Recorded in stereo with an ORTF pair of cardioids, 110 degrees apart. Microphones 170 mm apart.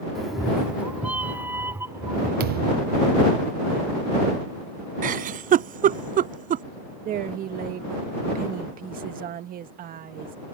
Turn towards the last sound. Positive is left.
turn(degrees=-55)